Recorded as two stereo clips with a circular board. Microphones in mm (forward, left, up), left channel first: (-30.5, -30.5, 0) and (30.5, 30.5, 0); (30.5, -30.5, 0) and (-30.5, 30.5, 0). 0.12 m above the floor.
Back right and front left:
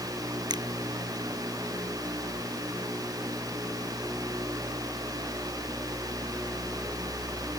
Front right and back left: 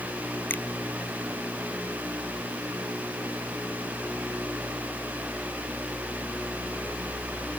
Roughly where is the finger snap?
Ahead left.